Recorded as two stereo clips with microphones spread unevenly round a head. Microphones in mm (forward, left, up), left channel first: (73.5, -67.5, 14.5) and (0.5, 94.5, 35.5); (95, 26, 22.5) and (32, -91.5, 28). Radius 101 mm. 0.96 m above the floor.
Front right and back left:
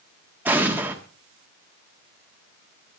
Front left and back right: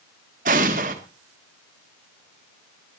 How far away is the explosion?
About 1.4 m.